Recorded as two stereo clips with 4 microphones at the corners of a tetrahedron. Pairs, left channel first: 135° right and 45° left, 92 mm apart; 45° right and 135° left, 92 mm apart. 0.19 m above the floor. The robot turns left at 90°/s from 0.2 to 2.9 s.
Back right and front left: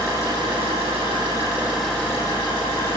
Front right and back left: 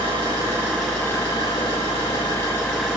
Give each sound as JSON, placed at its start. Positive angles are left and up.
{"t": 0.0, "sound": "an engine running", "azimuth_deg": 100, "distance_m": 4.5}